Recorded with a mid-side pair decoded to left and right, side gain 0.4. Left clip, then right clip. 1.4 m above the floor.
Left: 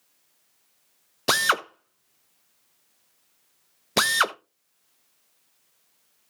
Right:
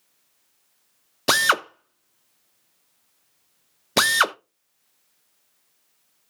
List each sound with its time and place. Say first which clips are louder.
1.3 s a drill: right 3 dB; 20° right, 0.8 m